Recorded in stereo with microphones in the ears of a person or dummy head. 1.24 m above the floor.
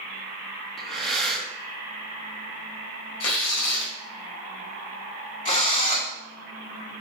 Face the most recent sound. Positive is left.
turn(degrees=40)  # may be behind; listen again after turning